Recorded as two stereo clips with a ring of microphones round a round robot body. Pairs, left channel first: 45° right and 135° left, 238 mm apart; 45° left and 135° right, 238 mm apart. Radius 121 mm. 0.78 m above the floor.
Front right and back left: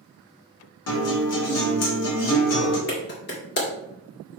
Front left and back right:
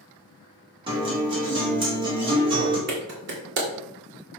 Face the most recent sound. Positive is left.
turn(degrees=-90)